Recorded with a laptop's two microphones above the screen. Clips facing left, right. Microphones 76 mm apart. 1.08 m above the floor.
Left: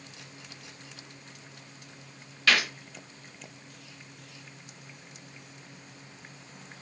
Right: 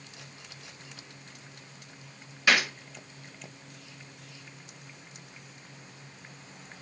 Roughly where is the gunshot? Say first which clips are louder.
Right 1 dB; centre.